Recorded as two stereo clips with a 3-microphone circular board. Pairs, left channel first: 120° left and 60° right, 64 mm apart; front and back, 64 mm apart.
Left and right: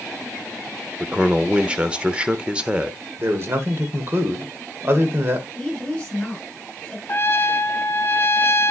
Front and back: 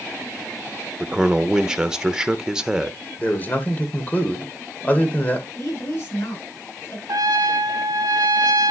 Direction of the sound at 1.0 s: 115° right.